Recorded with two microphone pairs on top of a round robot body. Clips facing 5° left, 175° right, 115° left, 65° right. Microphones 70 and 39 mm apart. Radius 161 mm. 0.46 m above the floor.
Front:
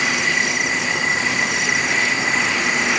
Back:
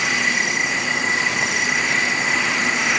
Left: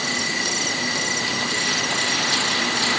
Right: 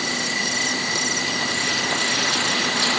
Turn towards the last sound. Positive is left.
No sound to turn to.